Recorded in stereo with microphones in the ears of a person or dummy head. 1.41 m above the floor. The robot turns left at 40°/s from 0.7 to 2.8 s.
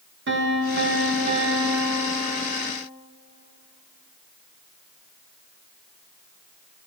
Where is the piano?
110° right, 1.4 m; by 2.7 s 170° left, 1.4 m.